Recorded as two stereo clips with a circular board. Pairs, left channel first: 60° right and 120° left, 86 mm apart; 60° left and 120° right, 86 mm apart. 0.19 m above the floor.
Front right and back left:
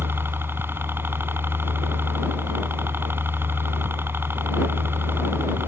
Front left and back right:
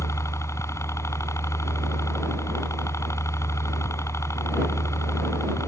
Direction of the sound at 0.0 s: 75° left.